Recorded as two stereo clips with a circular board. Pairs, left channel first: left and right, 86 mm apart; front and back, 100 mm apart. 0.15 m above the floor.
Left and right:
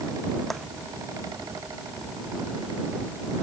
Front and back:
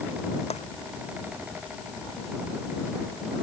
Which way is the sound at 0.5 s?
Straight ahead.